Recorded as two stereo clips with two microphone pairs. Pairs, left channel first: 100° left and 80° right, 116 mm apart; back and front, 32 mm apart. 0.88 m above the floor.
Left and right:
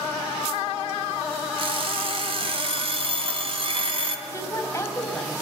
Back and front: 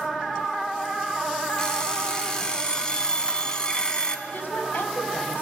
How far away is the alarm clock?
About 2.5 m.